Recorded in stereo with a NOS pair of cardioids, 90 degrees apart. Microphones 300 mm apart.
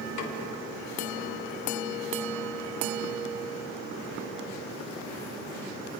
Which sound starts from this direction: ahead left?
A snare drum, at 0.2 s.